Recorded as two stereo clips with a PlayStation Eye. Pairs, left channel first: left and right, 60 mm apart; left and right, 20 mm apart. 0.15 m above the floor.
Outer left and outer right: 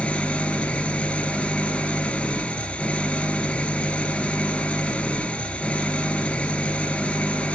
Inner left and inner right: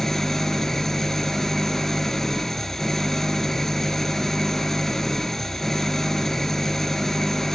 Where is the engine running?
20° left (ahead or behind), 1.5 m.